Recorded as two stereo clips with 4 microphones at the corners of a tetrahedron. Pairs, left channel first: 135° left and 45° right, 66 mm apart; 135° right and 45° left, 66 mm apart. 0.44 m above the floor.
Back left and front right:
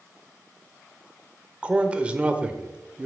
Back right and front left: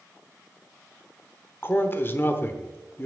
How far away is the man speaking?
About 1.0 m.